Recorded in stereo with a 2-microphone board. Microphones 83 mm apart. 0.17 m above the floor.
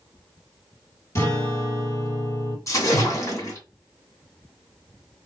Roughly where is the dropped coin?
I don't hear a dropped coin.